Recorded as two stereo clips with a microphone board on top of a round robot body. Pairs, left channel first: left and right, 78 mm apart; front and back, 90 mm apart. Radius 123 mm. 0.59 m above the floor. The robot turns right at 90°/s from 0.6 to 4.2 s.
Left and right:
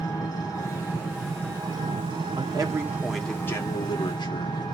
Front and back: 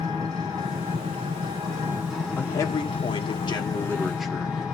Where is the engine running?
125° left, 8 m; by 4.8 s 90° left, 8 m.